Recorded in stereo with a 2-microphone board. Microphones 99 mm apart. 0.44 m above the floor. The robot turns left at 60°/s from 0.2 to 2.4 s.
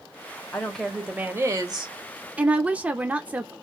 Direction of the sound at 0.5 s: 25° left.